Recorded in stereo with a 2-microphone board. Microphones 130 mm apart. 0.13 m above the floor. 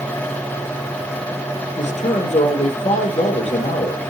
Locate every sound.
1.8 s a man speaking: 65° left (ahead or behind), 3.5 m